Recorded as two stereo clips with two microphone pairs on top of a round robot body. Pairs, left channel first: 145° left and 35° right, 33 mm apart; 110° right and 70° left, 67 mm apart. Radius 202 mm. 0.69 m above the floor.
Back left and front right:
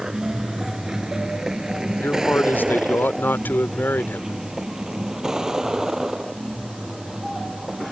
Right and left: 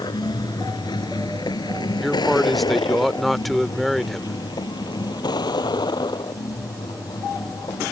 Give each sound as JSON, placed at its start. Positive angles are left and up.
{"t": 0.0, "sound": "a vehicle", "azimuth_deg": -115}
{"t": 2.0, "sound": "a man speaking", "azimuth_deg": 160}